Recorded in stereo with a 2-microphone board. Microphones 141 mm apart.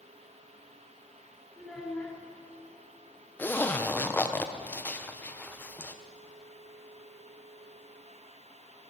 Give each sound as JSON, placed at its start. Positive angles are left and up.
{"t": 1.6, "sound": "a child speaking", "side_deg": 5, "distance_m": 2.5}
{"t": 3.4, "sound": "a zipper", "side_deg": 15, "distance_m": 0.6}